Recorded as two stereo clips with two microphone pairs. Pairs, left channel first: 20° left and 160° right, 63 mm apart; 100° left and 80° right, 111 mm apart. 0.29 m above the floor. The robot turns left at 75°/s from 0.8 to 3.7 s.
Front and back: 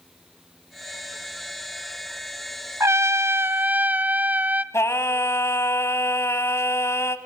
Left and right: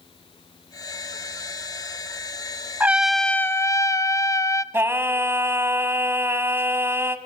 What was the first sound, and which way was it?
A trumpet, 145° right.